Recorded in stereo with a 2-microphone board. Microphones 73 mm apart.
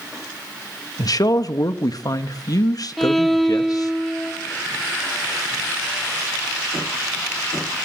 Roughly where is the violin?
Centre.